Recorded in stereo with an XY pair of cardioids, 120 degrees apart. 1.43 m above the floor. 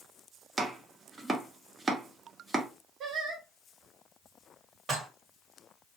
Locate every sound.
0.6 s chopping: 25° right, 0.7 m
3.0 s singing: 60° right, 1.2 m
4.9 s dishes clattering: 45° right, 1.2 m